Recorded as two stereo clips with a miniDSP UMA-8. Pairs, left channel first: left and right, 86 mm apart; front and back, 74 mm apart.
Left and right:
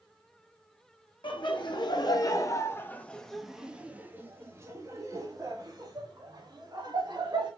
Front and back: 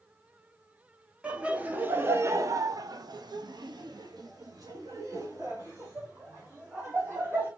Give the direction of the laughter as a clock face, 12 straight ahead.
8 o'clock.